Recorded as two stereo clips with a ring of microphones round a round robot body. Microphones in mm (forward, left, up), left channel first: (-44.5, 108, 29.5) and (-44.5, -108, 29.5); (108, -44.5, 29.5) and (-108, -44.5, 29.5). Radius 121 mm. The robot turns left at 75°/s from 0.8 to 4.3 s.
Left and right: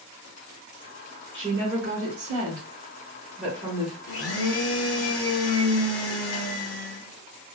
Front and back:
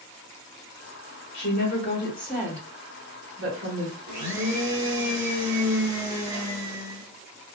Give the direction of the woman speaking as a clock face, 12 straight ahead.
1 o'clock.